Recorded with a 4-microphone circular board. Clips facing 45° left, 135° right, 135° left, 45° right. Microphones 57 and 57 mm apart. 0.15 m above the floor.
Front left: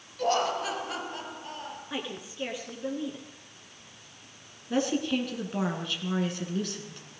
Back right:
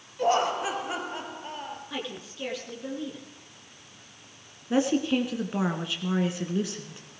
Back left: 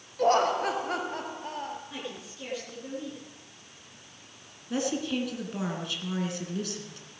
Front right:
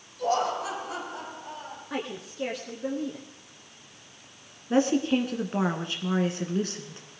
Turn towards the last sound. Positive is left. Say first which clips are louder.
# back right 3 dB, front right 7 dB
turn(degrees=-75)